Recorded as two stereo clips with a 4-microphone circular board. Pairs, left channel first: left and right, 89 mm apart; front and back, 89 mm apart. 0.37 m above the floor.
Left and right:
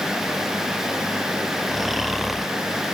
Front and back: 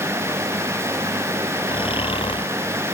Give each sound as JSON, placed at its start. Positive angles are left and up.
{"t": 1.7, "sound": "snoring", "azimuth_deg": 0}